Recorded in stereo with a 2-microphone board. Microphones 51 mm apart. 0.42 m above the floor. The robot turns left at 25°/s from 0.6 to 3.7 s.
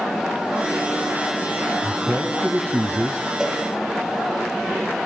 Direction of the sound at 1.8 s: 25° right.